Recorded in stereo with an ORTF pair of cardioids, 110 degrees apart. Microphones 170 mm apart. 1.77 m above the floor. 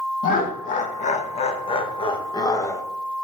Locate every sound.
0.2 s laughter: 55° left, 2.5 m; by 2.8 s 15° left, 2 m